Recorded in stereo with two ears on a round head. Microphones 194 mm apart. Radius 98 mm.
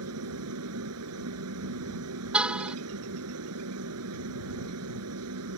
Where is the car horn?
5° right (ahead or behind).